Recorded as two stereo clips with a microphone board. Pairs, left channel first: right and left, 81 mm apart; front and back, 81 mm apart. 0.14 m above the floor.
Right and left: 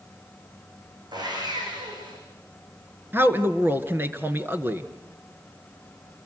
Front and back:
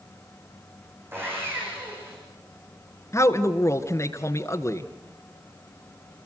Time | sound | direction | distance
1.1 | sawing | 120° left | 9.5 m
3.1 | a man speaking | 35° left | 1.7 m